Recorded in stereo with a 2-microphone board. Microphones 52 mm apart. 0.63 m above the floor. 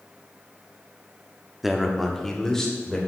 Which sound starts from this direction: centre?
A man speaking, at 1.6 s.